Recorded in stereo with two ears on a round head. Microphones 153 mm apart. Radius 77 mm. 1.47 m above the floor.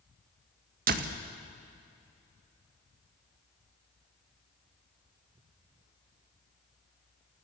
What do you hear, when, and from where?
0.9 s a door slam: 50° right (ahead or behind), 1.7 m